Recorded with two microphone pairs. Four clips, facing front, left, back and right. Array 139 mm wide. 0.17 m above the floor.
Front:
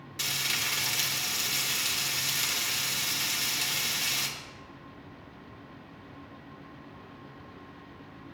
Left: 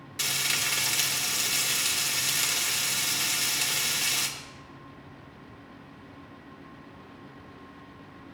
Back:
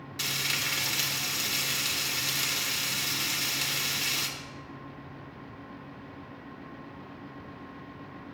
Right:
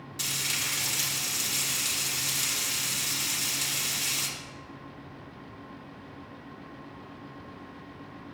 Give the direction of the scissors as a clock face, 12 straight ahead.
No scissors in this recording.